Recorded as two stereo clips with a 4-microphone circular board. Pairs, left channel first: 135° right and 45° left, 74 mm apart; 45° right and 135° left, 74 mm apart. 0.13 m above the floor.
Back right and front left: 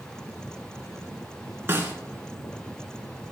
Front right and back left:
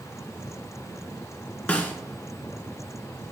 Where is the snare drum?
15° left, 2 m.